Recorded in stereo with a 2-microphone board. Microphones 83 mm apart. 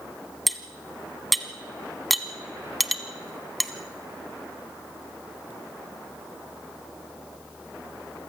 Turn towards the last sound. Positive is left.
turn(degrees=0)  # may be behind; listen again after turning